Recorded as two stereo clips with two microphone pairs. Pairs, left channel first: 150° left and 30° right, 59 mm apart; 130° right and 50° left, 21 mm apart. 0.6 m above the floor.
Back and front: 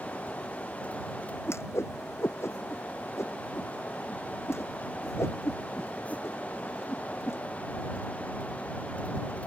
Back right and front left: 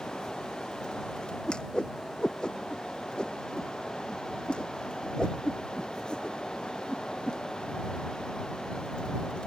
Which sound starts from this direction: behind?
A whoosh, at 1.5 s.